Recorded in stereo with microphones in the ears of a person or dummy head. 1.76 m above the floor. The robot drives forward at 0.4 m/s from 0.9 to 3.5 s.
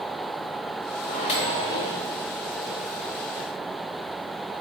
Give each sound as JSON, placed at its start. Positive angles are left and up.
{"t": 1.1, "sound": "a microwave", "side_deg": 35, "distance_m": 0.5}